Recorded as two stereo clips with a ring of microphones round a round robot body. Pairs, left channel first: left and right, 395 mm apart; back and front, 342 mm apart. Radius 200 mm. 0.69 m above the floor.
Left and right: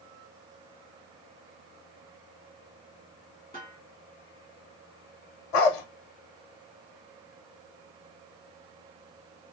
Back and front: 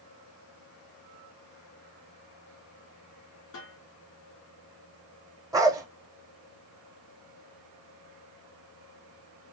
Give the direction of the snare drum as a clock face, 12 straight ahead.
6 o'clock.